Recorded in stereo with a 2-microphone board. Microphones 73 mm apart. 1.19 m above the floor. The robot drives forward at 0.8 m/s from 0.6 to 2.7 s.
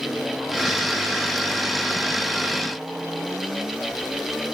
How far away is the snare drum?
I don't hear a snare drum.